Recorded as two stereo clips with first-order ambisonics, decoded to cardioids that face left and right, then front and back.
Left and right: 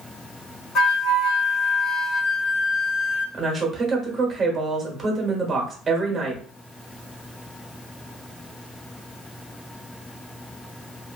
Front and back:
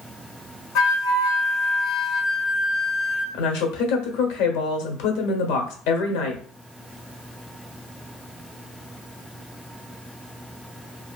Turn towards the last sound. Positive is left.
turn(degrees=-15)